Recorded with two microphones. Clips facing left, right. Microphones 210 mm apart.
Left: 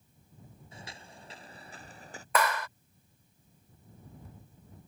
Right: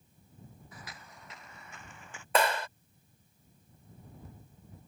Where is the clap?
30° right (ahead or behind).